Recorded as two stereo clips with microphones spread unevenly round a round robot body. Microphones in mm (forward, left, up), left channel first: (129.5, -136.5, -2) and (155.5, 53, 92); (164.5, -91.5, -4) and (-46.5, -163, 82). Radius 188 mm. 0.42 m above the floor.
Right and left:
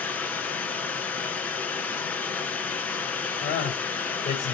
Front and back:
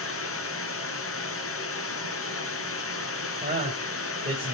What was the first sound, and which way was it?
Running water, 10° right.